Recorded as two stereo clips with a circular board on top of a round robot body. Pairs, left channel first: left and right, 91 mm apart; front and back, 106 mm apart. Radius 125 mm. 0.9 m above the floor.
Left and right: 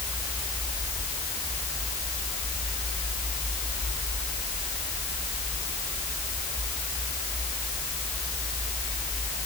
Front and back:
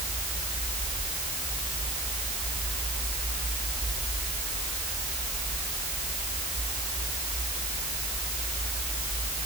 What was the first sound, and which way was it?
Only background noise.